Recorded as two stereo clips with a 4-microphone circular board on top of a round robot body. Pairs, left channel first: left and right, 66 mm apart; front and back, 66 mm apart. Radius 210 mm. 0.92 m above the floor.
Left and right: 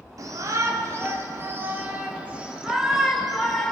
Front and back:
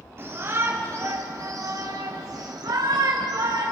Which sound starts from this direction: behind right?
A shout, at 0.2 s.